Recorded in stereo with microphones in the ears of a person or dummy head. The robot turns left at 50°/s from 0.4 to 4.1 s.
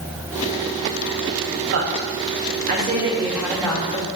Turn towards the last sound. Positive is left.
turn(degrees=150)